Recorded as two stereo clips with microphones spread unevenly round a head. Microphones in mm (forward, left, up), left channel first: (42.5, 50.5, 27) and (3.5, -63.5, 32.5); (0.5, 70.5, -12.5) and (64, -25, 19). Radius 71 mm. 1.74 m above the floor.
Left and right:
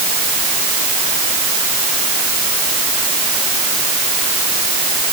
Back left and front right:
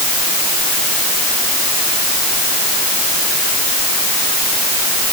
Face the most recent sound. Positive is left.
No sound to turn to.